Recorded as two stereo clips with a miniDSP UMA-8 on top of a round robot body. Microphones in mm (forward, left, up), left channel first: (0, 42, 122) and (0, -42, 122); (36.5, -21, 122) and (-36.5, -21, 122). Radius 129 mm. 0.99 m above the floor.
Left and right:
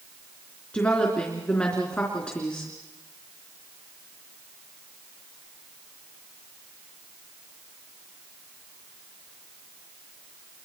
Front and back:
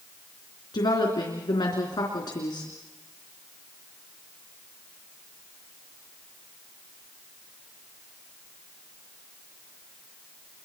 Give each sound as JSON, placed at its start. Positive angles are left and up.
{"t": 0.7, "sound": "a woman speaking", "azimuth_deg": 20, "distance_m": 3.5}